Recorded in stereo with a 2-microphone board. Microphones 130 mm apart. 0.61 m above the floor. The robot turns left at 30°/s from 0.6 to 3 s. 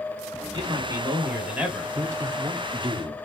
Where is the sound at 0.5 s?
140° right, 2.5 m; by 1.9 s 175° right, 2.5 m.